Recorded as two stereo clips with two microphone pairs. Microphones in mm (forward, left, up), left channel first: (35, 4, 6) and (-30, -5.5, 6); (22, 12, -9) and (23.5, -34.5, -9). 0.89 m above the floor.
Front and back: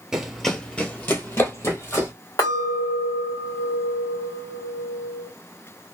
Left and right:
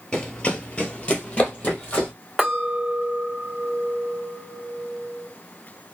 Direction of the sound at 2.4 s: 10° right.